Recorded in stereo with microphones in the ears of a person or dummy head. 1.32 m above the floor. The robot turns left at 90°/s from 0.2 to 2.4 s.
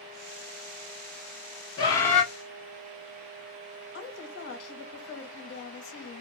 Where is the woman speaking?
80° left, 1.2 m.